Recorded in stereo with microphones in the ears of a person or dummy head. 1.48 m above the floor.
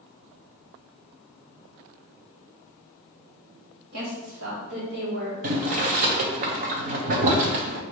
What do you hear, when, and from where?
3.9 s a woman speaking: 80° right, 1.3 m; by 5.3 s 45° right (ahead or behind), 1.7 m
5.4 s boiling: 50° right (ahead or behind), 0.6 m